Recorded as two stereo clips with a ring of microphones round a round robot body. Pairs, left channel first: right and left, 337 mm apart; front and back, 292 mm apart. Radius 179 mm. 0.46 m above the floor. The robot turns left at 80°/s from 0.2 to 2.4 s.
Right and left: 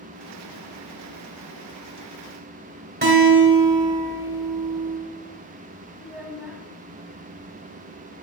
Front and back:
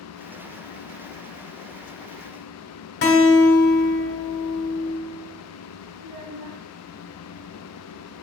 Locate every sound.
3.0 s a guitar: 35° left, 2 m
6.0 s a child speaking: straight behind, 1.9 m